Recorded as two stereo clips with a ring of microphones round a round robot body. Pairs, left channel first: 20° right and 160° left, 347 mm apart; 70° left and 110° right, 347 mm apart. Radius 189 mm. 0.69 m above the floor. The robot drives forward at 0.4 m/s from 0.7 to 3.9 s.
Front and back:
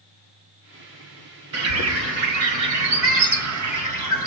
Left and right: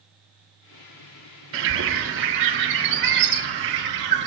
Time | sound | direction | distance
1.5 | a bird | 160° right | 1.5 m